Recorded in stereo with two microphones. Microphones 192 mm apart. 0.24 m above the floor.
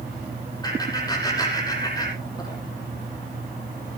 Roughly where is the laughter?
Left.